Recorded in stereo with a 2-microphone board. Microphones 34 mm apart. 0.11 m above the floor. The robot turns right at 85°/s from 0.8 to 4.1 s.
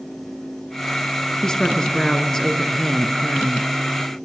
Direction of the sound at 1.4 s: 15° left (ahead or behind).